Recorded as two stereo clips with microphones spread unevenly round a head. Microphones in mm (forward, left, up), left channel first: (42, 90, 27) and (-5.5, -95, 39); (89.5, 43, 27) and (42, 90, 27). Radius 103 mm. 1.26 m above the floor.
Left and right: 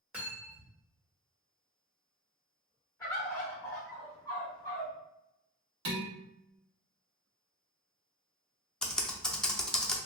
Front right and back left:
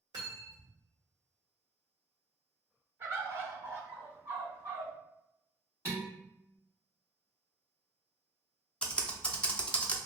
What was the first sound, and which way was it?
Cutlery clinking, 175° left.